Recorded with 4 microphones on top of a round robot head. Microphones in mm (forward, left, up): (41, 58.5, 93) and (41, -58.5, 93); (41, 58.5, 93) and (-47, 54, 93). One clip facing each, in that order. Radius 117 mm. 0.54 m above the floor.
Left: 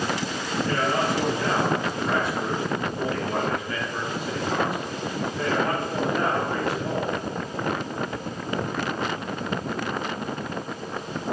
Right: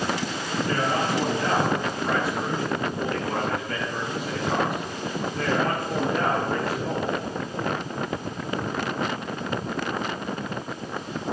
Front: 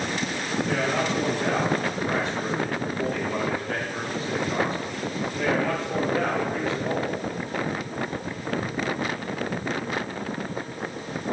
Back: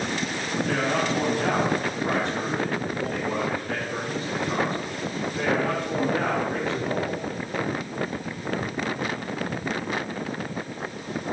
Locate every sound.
0.7 s a man speaking: 150° right, 6 m; by 7.2 s 120° right, 10 m